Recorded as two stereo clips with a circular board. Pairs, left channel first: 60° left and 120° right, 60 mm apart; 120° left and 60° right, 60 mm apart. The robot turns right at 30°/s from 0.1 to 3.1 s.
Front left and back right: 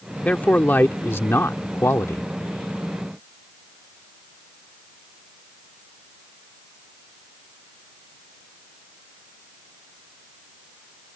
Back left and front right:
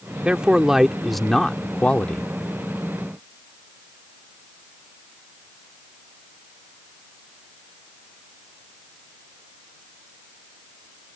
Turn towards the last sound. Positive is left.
turn(degrees=90)